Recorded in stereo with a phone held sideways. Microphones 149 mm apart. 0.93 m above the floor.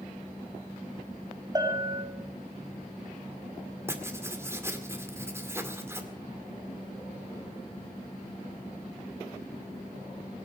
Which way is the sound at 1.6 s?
30° right (ahead or behind).